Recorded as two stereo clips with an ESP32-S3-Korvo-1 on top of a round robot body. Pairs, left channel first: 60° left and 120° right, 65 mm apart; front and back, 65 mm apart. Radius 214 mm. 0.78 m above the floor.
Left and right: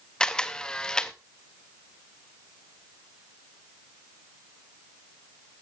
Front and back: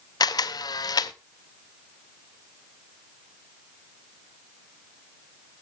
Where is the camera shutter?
20° right, 0.5 m.